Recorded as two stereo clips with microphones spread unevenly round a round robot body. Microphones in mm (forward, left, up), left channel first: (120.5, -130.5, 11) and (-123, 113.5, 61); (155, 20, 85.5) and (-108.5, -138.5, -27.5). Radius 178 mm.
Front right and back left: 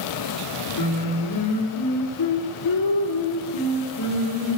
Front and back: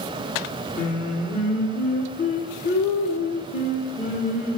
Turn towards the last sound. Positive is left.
turn(degrees=-40)